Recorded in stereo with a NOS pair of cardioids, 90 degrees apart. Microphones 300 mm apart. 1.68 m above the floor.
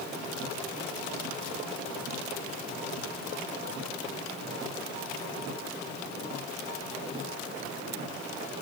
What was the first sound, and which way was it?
Only background noise.